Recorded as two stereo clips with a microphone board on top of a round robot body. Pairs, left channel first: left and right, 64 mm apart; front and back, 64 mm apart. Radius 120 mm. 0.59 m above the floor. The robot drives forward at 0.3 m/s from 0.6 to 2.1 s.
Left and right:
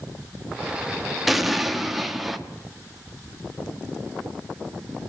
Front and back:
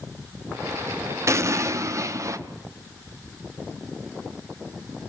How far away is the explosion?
About 1.6 m.